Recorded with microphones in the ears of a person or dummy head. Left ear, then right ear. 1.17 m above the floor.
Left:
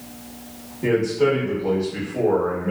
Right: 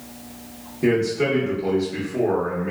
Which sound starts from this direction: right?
A man speaking, at 0.8 s.